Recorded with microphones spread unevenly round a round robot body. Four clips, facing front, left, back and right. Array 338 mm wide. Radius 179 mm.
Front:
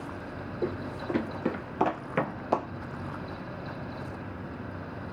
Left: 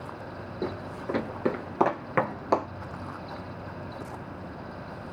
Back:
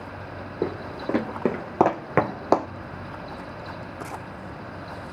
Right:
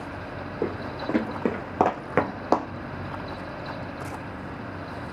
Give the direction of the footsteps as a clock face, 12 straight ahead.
5 o'clock.